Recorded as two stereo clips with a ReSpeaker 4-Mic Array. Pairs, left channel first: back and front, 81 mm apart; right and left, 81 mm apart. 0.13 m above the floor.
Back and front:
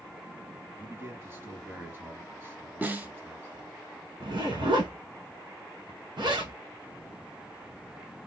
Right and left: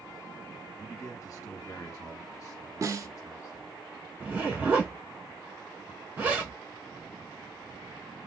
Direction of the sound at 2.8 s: 60° left.